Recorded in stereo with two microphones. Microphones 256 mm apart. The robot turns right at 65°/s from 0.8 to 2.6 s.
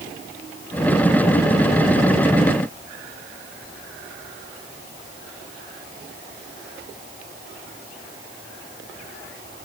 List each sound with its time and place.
Only background noise.